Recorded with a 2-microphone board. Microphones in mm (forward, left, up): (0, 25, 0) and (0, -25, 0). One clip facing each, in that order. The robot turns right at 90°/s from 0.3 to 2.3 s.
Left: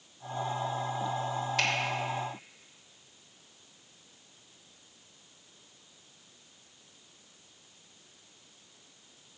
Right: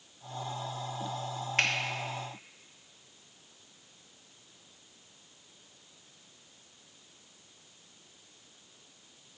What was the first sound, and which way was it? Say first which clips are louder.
A finger snap: right 2 dB; 40° right (ahead or behind).